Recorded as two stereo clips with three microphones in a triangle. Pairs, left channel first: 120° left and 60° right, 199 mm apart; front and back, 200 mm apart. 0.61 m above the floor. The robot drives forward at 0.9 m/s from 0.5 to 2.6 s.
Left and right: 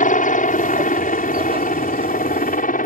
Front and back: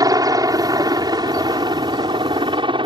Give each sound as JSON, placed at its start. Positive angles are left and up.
{"t": 0.0, "sound": "a helicopter", "azimuth_deg": 120}